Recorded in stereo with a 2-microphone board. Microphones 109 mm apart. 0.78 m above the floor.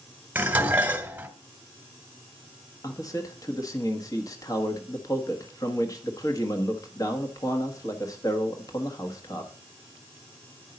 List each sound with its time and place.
0.3 s dishes clattering: 15° right (ahead or behind), 1.5 m
2.8 s a man speaking: 30° left (ahead or behind), 1.4 m